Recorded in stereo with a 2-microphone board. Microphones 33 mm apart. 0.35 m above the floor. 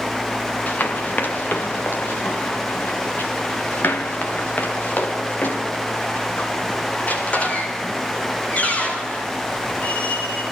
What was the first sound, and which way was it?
Running footsteps, 60° left (ahead or behind).